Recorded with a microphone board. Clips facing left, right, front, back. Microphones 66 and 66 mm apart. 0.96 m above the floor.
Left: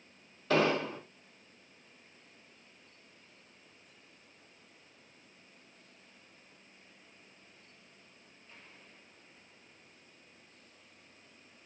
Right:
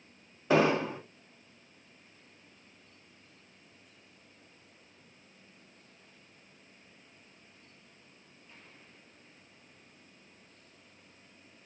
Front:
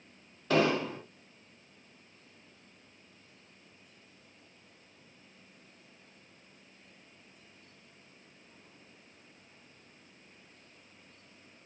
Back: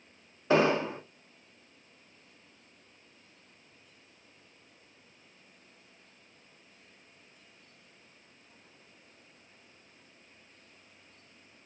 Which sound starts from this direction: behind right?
An explosion, at 0.5 s.